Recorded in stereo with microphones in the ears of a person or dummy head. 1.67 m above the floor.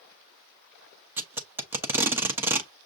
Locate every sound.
1.2 s tape being pulled: 10° right (ahead or behind), 0.6 m